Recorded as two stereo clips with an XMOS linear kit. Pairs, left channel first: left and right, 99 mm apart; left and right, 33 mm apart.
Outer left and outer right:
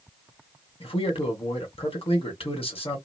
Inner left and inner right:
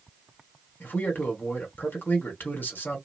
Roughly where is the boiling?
I don't hear boiling.